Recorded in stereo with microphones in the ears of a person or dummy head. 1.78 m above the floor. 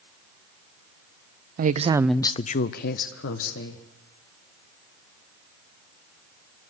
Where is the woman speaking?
50° right (ahead or behind), 0.8 m; by 3.9 s 75° left (ahead or behind), 2 m.